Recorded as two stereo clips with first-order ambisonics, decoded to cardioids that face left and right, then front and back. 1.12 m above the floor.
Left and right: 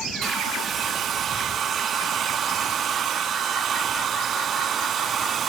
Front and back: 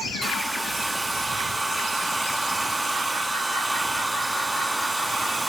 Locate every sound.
0.2 s a hair dryer: 105° right